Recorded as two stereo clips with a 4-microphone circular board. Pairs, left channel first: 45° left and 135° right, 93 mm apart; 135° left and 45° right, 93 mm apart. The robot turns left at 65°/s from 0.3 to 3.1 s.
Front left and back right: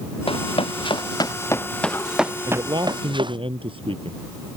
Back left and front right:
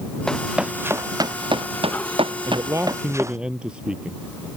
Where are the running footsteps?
50° left; by 3.4 s 100° right.